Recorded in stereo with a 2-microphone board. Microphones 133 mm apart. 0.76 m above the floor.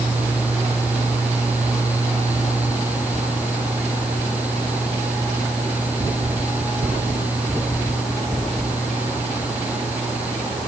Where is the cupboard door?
I don't hear a cupboard door.